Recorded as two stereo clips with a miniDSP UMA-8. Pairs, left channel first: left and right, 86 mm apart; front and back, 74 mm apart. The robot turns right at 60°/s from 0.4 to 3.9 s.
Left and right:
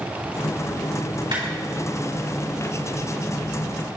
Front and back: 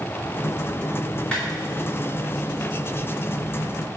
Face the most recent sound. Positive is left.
turn(degrees=80)